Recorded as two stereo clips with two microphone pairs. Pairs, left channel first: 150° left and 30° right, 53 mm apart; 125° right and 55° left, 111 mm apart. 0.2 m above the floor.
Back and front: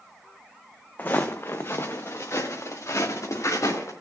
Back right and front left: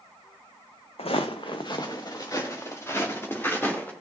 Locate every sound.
1.0 s footsteps: 155° right, 1.0 m; by 3.9 s 160° left, 2.5 m